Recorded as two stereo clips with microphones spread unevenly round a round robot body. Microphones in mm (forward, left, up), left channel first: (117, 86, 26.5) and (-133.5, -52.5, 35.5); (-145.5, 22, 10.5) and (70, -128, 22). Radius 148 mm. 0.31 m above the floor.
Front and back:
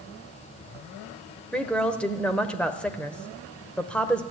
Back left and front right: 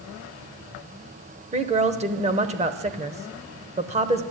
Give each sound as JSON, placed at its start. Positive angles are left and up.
{"t": 1.5, "sound": "a woman speaking", "azimuth_deg": -45, "distance_m": 0.9}